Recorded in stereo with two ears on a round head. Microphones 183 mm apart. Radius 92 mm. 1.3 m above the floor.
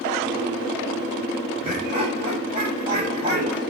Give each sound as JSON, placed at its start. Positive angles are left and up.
{"t": 1.6, "sound": "laughter", "side_deg": -30, "distance_m": 6.0}